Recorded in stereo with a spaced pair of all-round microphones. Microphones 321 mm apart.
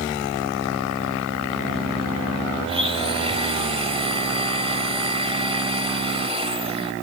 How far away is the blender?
About 1.4 m.